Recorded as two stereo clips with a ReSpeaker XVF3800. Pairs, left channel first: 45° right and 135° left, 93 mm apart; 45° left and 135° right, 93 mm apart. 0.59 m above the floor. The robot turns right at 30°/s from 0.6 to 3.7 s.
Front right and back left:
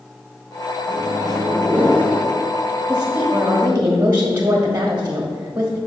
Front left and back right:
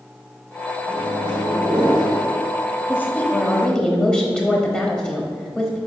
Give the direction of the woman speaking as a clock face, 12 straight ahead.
9 o'clock.